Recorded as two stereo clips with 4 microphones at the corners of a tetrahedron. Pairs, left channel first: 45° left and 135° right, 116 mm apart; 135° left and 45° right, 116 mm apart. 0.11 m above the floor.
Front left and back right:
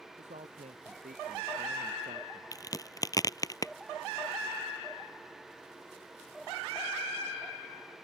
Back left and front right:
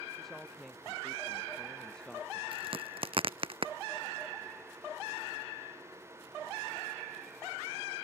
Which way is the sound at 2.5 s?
10° right.